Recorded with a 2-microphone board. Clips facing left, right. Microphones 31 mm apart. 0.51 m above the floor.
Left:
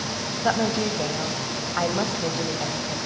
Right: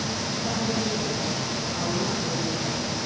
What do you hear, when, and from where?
0.4 s a woman speaking: 70° left (ahead or behind), 2.5 m; by 3.0 s 50° left (ahead or behind), 2.5 m